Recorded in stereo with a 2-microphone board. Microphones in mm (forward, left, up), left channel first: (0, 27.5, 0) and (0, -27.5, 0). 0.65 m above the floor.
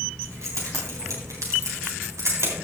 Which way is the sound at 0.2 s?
65° right (ahead or behind).